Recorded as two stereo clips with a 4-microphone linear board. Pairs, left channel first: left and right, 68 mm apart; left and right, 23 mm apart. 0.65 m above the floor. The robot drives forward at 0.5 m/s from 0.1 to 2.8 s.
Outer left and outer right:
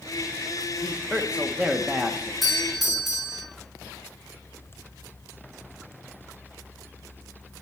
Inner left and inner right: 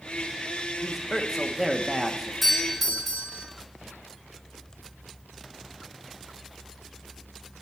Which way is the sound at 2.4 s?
Centre (ahead or behind).